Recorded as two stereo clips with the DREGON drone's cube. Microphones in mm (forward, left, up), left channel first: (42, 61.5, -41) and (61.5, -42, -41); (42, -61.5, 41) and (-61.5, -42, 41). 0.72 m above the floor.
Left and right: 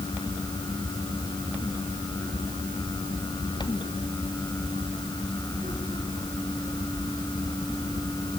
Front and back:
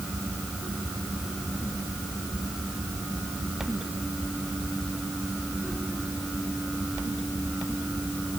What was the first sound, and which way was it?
Only background noise.